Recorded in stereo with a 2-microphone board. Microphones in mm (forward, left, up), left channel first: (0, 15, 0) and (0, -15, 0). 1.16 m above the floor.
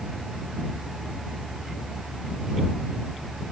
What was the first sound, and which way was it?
Only background noise.